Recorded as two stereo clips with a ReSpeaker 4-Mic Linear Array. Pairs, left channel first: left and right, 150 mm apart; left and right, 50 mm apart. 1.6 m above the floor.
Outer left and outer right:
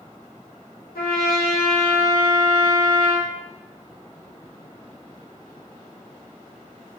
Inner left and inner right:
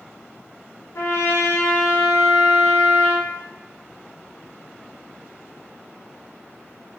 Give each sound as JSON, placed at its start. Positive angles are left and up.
{"t": 0.9, "sound": "a trumpet", "side_deg": 85, "distance_m": 0.7}